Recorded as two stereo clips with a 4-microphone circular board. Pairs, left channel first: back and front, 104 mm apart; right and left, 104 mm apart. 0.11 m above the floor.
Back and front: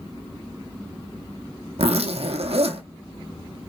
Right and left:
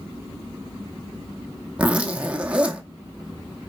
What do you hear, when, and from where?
1.8 s a zipper: 10° left, 0.8 m